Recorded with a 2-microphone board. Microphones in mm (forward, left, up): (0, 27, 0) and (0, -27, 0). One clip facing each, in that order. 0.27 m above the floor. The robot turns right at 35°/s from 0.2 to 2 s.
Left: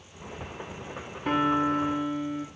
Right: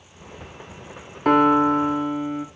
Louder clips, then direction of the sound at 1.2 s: Right 8 dB; 70° right (ahead or behind).